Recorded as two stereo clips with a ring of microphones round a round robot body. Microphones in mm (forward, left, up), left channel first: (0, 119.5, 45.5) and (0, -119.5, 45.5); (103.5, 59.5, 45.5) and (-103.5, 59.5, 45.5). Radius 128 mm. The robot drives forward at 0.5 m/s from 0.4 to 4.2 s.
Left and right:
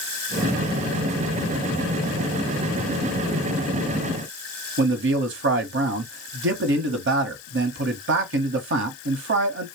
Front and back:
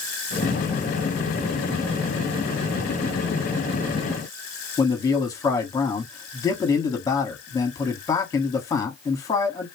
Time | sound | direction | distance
4.8 | a man speaking | 70° right | 1.2 m